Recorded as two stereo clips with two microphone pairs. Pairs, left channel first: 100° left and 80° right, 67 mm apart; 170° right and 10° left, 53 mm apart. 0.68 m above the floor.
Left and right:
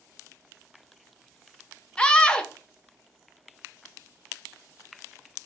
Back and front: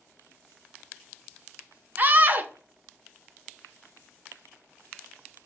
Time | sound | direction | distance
2.0 | a scream | 35° left | 0.6 m